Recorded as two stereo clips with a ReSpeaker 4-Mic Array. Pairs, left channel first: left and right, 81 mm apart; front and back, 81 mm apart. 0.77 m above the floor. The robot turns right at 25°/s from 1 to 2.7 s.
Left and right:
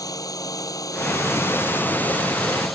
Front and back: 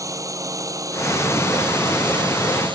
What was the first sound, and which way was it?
A drone, 135° left.